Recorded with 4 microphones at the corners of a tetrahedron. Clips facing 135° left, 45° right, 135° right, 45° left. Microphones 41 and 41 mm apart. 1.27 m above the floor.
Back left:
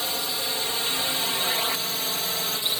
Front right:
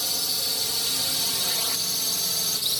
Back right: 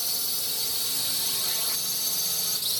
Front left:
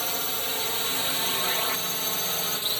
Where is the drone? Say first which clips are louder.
Back left 2 dB, front left 5 dB; 85° left; by 2.8 s 90° left.